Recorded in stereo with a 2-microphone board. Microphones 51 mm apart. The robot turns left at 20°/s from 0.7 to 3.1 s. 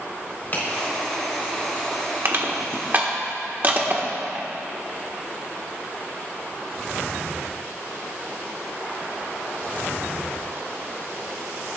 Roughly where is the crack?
Left.